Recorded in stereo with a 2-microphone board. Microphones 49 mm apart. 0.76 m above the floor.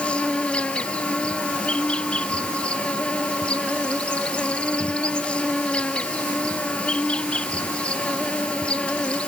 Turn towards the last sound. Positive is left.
turn(degrees=25)  # may be behind; listen again after turning